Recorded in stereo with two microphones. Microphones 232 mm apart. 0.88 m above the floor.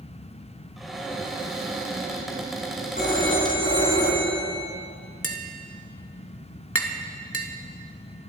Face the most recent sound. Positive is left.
turn(degrees=70)  # may be behind; listen again after turning